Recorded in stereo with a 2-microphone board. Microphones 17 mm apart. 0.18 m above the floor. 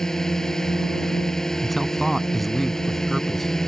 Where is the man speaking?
10° left (ahead or behind).